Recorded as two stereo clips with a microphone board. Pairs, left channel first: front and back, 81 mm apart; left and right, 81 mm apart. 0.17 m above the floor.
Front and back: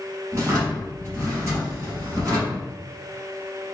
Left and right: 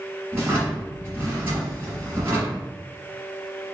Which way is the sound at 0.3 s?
145° right.